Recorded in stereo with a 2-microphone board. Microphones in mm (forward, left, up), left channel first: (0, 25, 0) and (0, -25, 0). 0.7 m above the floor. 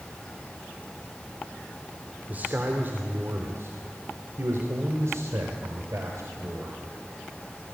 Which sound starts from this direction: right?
A man speaking, at 2.3 s.